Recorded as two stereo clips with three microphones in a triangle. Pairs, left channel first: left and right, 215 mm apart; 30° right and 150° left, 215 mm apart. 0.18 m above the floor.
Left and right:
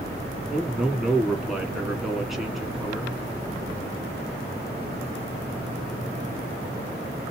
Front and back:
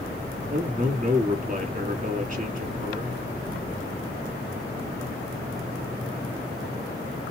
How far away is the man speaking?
About 2 m.